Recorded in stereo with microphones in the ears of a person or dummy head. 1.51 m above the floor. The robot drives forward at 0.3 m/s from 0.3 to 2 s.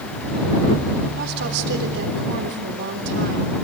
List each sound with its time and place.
1.2 s a woman speaking: 65° right (ahead or behind), 4 m